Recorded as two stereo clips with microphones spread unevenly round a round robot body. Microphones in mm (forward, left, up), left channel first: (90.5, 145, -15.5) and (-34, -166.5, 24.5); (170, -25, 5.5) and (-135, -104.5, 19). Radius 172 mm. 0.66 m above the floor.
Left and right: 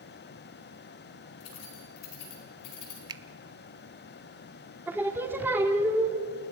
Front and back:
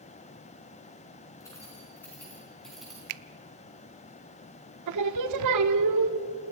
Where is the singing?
160° left, 0.9 m.